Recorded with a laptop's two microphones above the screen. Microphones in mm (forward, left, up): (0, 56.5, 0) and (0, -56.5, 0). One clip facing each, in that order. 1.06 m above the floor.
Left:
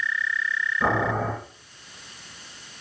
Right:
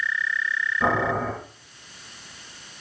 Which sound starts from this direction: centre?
Boiling, at 0.8 s.